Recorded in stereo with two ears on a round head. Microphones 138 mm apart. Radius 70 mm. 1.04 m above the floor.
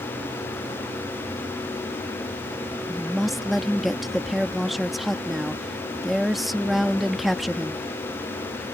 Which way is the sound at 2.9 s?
Centre (ahead or behind).